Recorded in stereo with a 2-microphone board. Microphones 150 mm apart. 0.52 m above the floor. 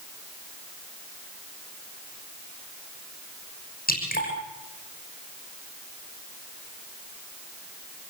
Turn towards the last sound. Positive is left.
turn(degrees=80)